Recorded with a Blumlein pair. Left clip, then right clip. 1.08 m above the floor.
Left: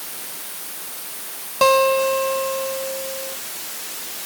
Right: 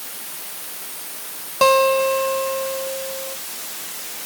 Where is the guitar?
Straight ahead.